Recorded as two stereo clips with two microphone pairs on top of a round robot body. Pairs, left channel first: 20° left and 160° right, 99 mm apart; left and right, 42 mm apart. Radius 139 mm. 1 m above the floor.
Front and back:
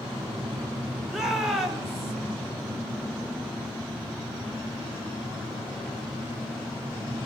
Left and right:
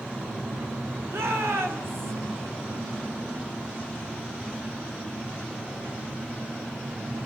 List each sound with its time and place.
0.0 s an engine running: 65° right, 4 m
1.1 s a shout: 75° right, 4 m